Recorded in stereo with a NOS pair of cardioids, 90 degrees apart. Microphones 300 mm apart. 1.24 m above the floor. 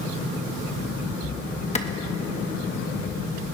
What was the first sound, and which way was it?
A clap, 20° left.